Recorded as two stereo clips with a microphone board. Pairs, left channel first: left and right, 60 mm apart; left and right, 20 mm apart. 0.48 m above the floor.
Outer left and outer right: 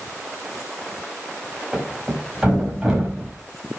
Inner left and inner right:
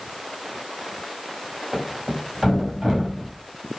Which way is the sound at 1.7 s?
15° right (ahead or behind).